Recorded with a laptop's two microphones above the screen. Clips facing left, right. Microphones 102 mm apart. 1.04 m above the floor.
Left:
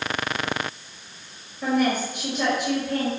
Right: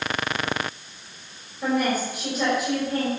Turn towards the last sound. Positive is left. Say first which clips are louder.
# left 1 dB
turn(degrees=-5)  # may be behind; listen again after turning